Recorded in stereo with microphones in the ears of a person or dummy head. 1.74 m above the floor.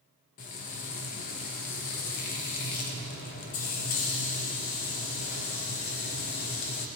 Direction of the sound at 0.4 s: 45° left (ahead or behind).